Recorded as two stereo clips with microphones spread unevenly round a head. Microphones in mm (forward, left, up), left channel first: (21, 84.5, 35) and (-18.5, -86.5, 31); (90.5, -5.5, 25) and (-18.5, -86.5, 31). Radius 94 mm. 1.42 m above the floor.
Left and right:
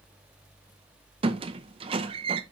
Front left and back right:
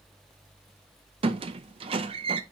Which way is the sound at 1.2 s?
150° right.